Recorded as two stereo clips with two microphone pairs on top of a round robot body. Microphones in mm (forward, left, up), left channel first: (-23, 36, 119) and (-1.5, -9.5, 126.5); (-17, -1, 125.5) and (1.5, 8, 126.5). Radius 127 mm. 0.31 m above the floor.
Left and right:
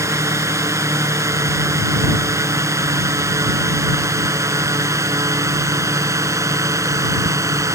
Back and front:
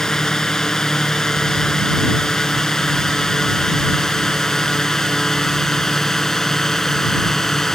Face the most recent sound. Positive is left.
turn(degrees=-80)